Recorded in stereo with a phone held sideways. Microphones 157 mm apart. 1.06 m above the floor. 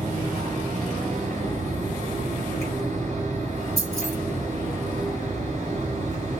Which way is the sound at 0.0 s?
50° right (ahead or behind).